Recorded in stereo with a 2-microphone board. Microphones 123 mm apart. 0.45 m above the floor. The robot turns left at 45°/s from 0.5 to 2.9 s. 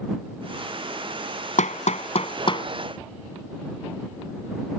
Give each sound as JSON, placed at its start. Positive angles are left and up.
{"t": 1.6, "sound": "hammering", "side_deg": 80}